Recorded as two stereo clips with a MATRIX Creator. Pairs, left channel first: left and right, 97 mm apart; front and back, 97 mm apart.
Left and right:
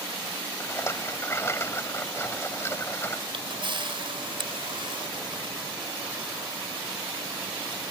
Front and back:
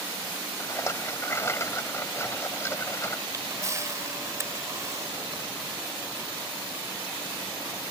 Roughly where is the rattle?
Ahead left.